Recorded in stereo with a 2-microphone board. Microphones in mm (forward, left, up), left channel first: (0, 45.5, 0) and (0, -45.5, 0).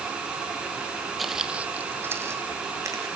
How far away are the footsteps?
About 1.3 m.